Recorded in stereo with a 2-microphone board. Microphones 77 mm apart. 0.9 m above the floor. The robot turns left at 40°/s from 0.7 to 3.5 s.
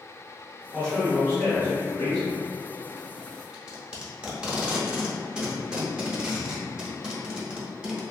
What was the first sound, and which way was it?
A man speaking, straight behind.